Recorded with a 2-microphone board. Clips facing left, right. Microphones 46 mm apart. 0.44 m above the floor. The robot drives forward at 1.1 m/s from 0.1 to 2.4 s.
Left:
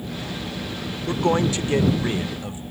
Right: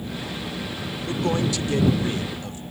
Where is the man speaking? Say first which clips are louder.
Left 3 dB; 40° left (ahead or behind); by 2.6 s 20° left (ahead or behind).